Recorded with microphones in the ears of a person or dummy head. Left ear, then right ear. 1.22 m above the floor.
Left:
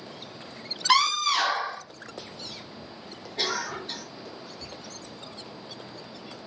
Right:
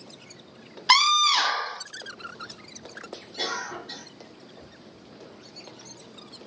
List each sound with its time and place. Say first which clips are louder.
0.9 s a scream: right 4 dB; 20° right (ahead or behind), 0.9 m
3.4 s a cough: left 2 dB; 25° left (ahead or behind), 1.3 m